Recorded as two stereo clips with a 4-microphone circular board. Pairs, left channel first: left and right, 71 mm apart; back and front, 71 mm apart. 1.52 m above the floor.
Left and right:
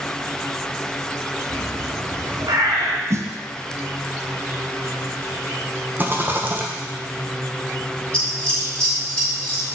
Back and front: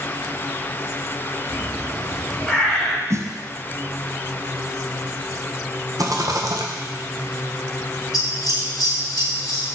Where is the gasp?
I don't hear a gasp.